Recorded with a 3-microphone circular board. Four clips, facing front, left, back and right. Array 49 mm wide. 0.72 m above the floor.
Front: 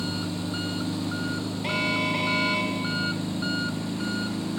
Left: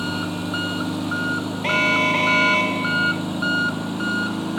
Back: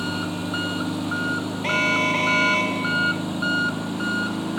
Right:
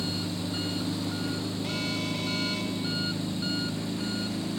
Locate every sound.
0.0 s an engine running: 120° left
1.6 s an alarm: 110° left